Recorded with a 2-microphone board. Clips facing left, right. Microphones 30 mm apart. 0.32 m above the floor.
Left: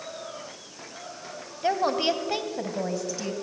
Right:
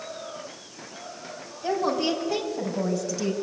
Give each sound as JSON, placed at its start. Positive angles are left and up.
{"t": 1.6, "sound": "a woman speaking", "side_deg": 35, "distance_m": 2.5}